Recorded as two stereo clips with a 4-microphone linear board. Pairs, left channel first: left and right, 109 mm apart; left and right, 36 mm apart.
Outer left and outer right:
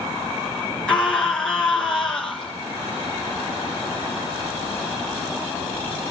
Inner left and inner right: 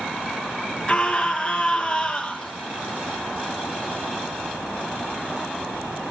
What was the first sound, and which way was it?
A scream, 5° left (ahead or behind).